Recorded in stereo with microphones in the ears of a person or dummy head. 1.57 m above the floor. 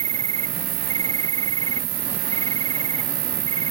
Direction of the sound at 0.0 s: 40° right (ahead or behind).